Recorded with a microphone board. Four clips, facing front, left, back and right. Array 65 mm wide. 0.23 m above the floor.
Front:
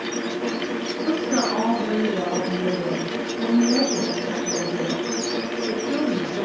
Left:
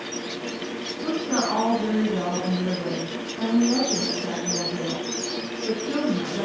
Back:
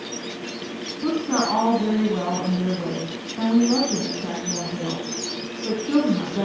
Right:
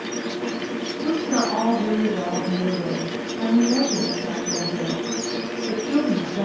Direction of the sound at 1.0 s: Straight behind.